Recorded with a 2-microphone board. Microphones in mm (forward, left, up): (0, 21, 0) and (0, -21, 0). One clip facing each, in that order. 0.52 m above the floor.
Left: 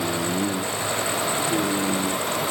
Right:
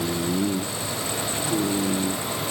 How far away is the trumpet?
No trumpet in this recording.